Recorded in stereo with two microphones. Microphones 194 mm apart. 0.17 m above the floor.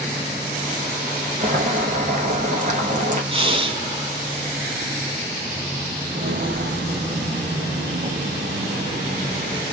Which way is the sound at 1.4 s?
45° right (ahead or behind).